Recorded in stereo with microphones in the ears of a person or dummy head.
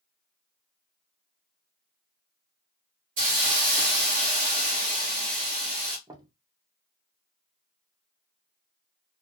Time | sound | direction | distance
3.2 | a hiss | 45° right (ahead or behind) | 1.3 m
6.1 | knocking | 20° right (ahead or behind) | 0.5 m